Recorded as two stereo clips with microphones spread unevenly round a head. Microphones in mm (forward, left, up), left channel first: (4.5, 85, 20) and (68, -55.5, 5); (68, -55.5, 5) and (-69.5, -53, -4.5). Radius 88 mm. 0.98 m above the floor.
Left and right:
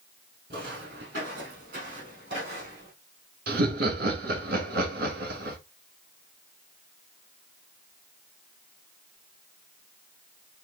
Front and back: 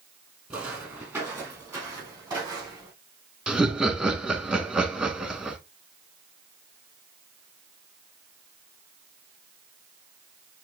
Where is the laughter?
100° right, 1.9 m.